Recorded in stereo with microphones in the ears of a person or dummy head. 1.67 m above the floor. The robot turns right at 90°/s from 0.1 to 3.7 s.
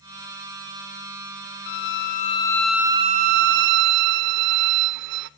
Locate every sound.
1.7 s a violin: 85° left, 0.5 m; by 5.3 s 95° right, 0.5 m